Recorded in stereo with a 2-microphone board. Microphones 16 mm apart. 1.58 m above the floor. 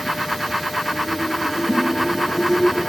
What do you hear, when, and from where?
1.7 s a giggle: 55° right (ahead or behind), 1.6 m